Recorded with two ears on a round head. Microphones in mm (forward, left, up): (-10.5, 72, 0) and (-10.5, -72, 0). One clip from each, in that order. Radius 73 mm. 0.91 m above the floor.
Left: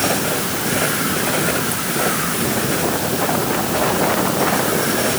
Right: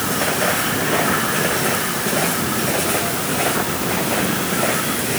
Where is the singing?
I don't hear singing.